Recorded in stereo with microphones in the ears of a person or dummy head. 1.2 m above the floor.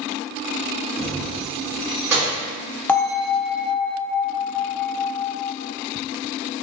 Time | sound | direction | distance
1.0 | keys jangling | 5° left (ahead or behind) | 1.8 m
2.9 | a bell | 10° left (ahead or behind) | 0.5 m